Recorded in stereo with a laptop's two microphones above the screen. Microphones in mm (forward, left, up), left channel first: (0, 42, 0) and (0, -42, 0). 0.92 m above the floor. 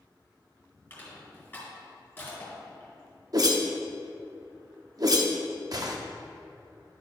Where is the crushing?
25° left (ahead or behind), 2.5 m.